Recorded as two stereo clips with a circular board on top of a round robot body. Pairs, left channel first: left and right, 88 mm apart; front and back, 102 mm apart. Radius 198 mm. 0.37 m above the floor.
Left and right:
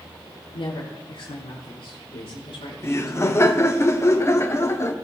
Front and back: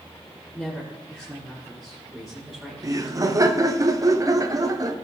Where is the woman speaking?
85° left, 5.5 m; by 3.6 s 105° left, 5.5 m.